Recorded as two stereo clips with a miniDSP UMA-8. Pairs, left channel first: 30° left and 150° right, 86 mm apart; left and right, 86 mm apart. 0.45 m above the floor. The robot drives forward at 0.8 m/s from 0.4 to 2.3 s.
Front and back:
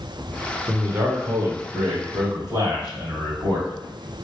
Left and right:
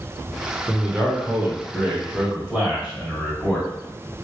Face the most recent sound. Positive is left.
turn(degrees=-170)